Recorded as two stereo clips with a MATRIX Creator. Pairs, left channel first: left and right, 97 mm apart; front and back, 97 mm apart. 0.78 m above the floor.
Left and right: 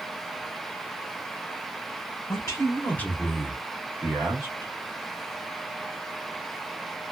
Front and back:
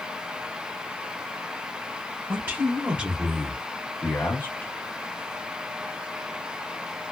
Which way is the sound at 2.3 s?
125° left.